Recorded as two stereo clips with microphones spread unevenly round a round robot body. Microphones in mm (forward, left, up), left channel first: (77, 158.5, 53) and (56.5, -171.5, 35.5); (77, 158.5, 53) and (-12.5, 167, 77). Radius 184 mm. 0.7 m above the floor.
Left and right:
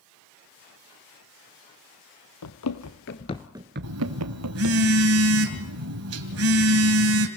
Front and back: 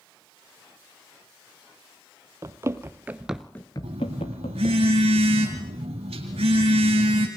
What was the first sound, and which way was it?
Running footsteps, 125° left.